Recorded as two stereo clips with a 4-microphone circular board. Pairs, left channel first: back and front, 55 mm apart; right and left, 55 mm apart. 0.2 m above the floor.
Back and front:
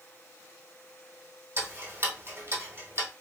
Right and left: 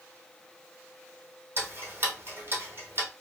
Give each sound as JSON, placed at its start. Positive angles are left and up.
{"t": 1.6, "sound": "ticking", "azimuth_deg": 40, "distance_m": 1.1}